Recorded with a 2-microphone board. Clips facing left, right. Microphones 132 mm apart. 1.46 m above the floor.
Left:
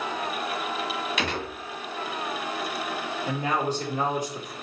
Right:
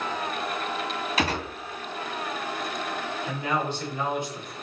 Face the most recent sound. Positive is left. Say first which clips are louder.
# left 2 dB
turn(degrees=40)  # may be behind; listen again after turning